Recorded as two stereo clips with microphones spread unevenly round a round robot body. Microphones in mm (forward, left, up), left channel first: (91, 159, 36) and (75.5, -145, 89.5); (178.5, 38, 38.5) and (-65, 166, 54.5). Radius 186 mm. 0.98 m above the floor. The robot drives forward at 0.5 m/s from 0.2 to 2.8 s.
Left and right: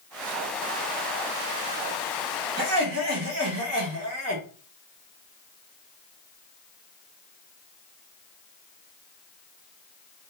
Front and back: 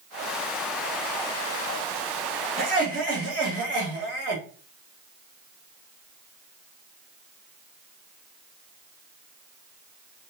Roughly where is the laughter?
Behind right.